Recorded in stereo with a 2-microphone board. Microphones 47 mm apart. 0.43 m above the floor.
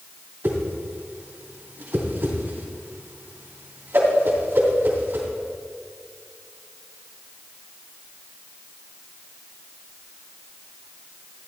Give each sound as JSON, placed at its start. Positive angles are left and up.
{"t": 0.4, "sound": "a whoosh", "side_deg": -55, "distance_m": 2.5}